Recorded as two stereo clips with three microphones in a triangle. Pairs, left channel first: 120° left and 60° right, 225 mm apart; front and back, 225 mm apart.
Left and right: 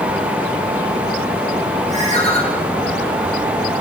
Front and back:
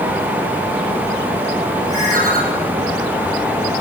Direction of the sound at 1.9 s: Straight behind.